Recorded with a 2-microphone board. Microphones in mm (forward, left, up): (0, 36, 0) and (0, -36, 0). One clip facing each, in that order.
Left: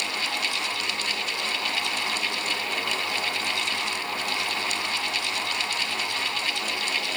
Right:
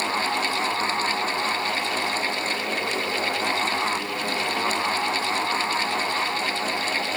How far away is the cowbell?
No cowbell in this recording.